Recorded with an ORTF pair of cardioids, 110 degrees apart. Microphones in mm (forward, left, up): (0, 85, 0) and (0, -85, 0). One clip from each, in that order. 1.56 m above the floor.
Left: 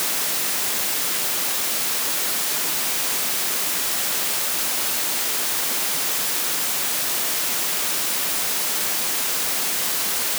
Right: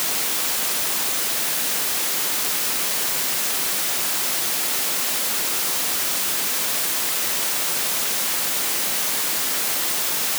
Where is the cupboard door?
I don't hear a cupboard door.